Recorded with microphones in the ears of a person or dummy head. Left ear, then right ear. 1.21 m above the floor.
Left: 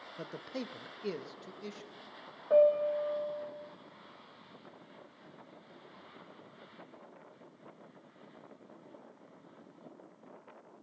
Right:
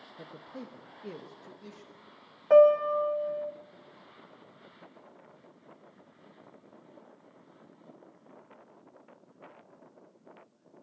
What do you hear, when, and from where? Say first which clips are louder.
0.2 s a man speaking: left 4 dB; 80° left, 0.9 m; by 1.9 s 20° left (ahead or behind), 1.6 m
2.5 s a piano: right 6 dB; 65° right (ahead or behind), 1.6 m